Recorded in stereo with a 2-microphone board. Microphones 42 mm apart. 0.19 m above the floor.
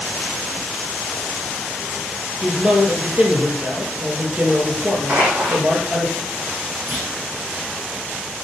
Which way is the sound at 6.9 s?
60° right (ahead or behind).